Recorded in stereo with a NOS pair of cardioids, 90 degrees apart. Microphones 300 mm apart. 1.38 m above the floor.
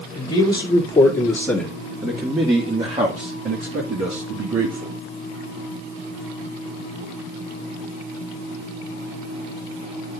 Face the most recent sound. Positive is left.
turn(degrees=-55)